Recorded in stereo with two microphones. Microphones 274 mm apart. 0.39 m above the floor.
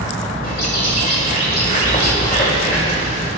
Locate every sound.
0.4 s a bird: 30° left (ahead or behind), 2.5 m